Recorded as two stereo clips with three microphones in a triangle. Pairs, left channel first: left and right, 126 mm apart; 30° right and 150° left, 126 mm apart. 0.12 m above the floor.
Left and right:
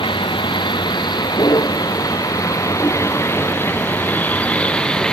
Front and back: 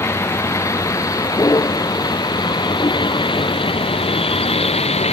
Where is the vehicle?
40° left; by 5.1 s 5° left.